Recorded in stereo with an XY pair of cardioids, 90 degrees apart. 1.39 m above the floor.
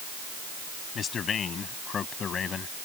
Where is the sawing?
I don't hear sawing.